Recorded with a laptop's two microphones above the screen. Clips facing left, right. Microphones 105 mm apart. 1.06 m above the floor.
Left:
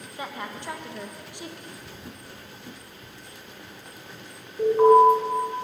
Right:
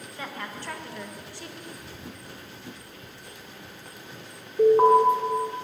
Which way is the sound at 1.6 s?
15° right (ahead or behind).